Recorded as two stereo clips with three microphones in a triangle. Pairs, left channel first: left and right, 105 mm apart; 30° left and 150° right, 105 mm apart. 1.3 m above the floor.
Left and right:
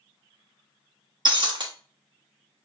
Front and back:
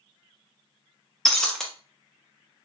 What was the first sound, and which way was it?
Breaking glass, 55° right.